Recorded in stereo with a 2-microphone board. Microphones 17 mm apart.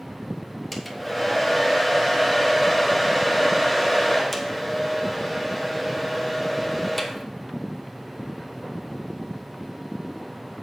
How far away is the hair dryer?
About 1.1 m.